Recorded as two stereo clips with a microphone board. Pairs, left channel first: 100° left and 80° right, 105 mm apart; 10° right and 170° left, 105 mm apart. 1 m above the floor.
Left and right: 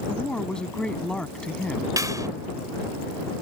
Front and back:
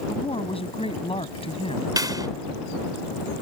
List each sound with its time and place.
0.1 s a woman speaking: 15° left
2.0 s a clap: 135° right